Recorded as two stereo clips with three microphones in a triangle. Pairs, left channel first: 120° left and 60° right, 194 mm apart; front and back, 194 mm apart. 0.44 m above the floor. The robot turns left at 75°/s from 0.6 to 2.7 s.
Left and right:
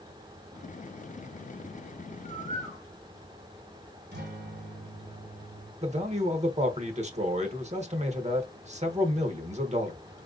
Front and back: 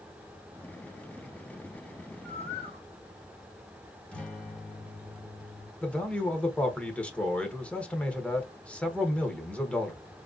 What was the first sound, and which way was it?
A bird, 5° right.